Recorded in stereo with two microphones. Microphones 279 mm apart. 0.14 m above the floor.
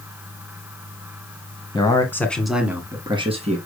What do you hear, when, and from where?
1.7 s a man speaking: 15° left (ahead or behind), 1.8 m; by 3.6 s 25° right (ahead or behind), 1.8 m